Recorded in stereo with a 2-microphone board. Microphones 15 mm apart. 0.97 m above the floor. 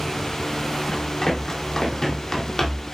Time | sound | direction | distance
0.9 | running footsteps | 45° left (ahead or behind) | 2.5 m